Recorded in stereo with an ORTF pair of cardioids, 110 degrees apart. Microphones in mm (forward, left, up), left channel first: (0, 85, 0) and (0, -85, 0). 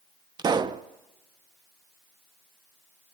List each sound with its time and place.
0.4 s a pop: 25° right, 0.8 m